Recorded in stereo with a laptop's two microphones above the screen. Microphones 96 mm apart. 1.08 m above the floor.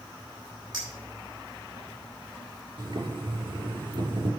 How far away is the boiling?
About 4 m.